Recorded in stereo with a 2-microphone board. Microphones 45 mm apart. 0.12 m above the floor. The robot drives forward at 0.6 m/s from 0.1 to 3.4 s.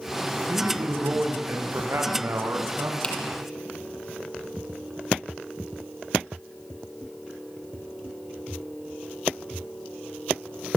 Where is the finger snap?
25° left (ahead or behind), 4 m.